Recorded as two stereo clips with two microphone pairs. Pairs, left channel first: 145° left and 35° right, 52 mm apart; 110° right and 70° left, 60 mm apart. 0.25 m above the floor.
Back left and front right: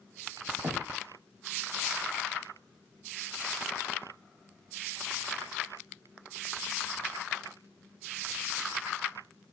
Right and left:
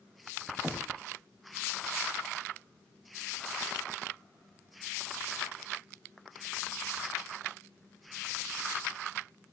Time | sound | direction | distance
0.6 | knocking | 10° right | 1.4 m